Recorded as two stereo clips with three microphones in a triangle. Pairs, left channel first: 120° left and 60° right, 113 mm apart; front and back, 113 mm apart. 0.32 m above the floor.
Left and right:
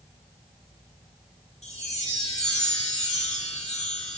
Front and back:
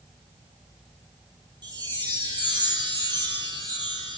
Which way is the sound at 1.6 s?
130° left.